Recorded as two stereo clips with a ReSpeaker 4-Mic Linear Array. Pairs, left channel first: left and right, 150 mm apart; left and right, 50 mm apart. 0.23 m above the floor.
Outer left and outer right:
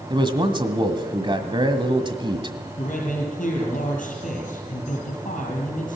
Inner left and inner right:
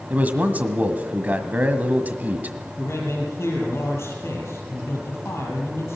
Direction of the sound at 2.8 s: 60° left (ahead or behind).